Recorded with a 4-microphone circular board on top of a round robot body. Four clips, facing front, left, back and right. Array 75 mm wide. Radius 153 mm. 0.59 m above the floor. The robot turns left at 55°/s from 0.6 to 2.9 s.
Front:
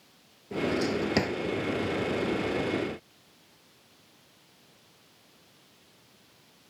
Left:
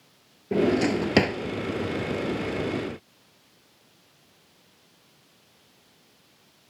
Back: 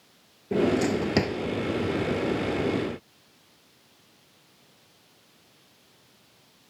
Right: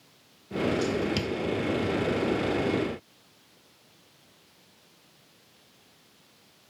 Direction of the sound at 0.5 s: 120° left.